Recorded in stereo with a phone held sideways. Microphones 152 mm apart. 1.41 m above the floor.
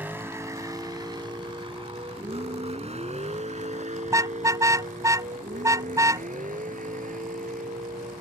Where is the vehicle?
15° right (ahead or behind); by 8.2 s 70° right (ahead or behind).